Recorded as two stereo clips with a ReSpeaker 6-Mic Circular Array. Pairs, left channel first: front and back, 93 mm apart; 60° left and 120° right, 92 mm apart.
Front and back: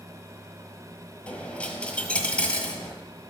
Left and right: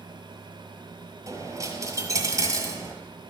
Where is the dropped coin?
75° right, 1.3 m.